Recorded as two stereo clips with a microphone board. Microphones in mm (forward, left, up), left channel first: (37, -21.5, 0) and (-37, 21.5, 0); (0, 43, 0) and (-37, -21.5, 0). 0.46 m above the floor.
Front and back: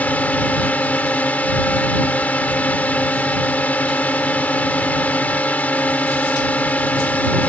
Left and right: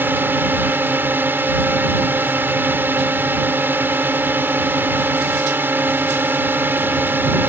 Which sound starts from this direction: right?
A drone, at 0.0 s.